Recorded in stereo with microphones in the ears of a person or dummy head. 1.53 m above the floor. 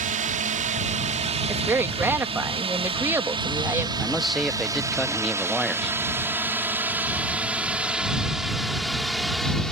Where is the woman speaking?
15° right (ahead or behind).